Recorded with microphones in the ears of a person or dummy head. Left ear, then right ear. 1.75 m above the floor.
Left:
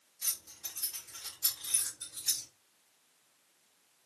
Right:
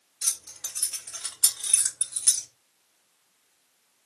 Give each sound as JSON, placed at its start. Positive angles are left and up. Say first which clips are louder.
{"t": 0.2, "sound": "keys jangling", "louder": "right 8 dB", "side_deg": -30, "distance_m": 1.2}